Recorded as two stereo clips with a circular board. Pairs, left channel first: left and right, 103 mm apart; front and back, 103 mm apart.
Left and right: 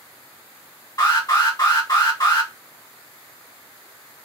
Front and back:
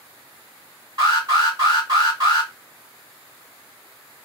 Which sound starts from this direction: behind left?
An alarm, at 1.0 s.